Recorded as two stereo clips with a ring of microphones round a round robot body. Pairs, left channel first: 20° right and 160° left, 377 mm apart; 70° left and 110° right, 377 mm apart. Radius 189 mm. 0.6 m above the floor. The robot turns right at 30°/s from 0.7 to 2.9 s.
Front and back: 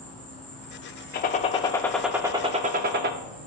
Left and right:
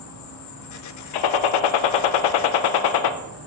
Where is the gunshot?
40° left, 0.5 m; by 3.1 s 95° left, 0.5 m.